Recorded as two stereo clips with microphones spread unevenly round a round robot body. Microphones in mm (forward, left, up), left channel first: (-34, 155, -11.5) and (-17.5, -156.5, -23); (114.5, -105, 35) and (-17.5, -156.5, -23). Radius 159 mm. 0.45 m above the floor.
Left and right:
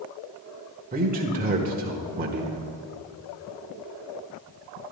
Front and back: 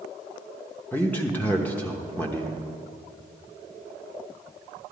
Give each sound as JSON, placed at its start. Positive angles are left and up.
{"t": 0.9, "sound": "a man speaking", "azimuth_deg": -90, "distance_m": 1.0}